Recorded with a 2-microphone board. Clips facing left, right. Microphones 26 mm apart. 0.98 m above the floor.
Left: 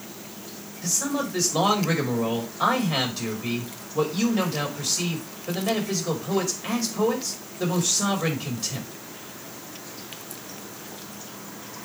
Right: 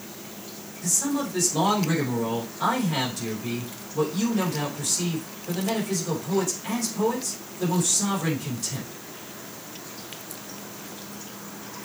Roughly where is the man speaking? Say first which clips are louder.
Even; left.